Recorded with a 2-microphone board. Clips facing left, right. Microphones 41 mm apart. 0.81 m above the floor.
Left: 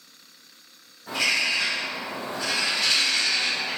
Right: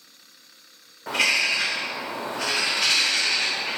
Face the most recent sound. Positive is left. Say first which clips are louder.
# right 2 dB
turn(degrees=-70)  # may be behind; listen again after turning